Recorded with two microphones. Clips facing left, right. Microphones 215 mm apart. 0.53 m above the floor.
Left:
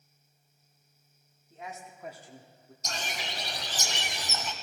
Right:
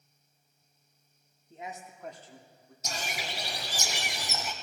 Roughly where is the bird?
Centre.